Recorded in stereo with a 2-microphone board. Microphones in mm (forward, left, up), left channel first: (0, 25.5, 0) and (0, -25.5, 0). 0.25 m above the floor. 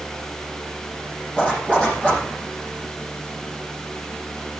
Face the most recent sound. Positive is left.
turn(degrees=20)  # may be behind; listen again after turning